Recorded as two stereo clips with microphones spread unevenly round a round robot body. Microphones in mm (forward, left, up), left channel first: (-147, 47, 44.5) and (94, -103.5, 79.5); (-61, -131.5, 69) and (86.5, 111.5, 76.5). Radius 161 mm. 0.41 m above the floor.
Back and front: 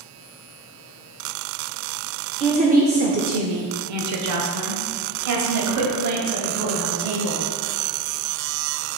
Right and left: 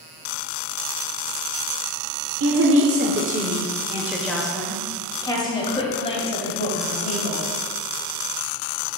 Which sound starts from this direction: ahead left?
A woman speaking, at 2.4 s.